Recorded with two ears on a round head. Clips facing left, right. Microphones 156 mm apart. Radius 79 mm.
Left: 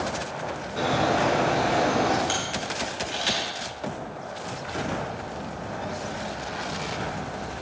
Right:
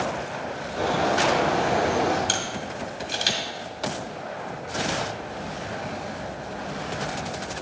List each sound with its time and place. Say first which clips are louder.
0.8 s a bird: even; 45° left (ahead or behind), 4 m
2.3 s a camera shutter: even; 45° right (ahead or behind), 2.5 m